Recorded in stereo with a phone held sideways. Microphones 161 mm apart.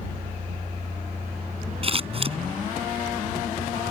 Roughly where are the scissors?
Right.